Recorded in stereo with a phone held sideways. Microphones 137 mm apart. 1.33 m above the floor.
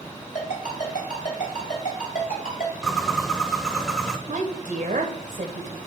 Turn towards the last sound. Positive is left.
turn(degrees=-60)  # may be behind; listen again after turning